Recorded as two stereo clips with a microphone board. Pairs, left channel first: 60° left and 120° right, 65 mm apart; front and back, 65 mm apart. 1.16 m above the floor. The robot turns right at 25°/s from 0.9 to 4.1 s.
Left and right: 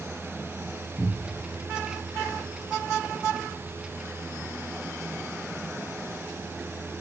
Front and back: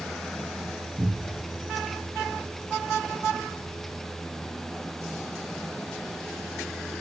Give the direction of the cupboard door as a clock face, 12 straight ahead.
10 o'clock.